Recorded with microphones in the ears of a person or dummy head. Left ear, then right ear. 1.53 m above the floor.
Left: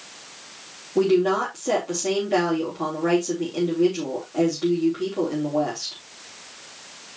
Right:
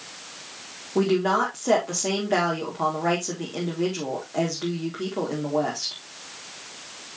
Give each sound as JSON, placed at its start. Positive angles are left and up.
{"t": 0.9, "sound": "a woman speaking", "side_deg": -60, "distance_m": 3.5}